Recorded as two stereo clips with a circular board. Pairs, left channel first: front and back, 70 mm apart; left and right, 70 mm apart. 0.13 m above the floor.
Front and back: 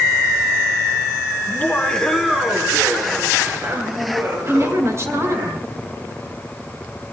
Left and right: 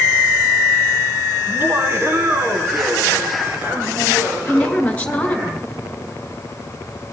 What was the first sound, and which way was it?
Laughter, 50° right.